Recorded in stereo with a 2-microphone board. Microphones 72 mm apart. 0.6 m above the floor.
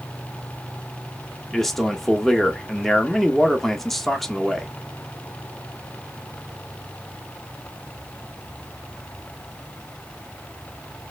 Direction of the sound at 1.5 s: 5° left (ahead or behind).